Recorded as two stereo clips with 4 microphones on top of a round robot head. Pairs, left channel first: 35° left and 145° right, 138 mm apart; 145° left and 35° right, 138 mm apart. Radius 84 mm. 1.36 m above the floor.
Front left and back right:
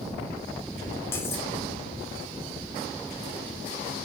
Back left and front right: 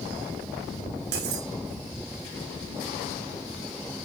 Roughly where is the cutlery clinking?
Ahead right.